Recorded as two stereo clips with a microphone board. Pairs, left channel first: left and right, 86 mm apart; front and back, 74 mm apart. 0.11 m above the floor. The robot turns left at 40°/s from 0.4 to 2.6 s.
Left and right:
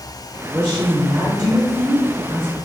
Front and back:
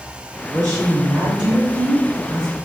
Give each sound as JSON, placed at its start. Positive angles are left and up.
{"t": 0.5, "sound": "a woman speaking", "azimuth_deg": -140, "distance_m": 2.0}